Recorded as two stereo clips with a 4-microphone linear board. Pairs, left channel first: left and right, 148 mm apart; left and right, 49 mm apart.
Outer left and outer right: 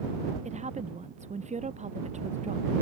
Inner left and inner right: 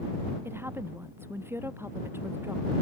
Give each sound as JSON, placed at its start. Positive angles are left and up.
{"t": 0.5, "sound": "a woman speaking", "side_deg": -55}